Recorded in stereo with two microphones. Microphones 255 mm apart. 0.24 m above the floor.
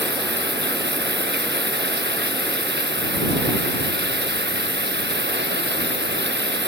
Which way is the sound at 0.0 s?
45° right (ahead or behind).